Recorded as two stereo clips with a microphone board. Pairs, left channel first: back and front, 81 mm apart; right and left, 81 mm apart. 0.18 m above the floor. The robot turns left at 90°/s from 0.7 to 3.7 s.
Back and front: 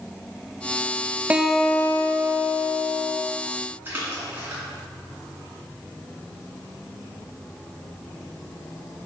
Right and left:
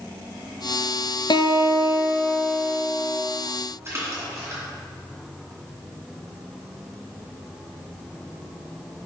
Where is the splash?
50° left, 2 m.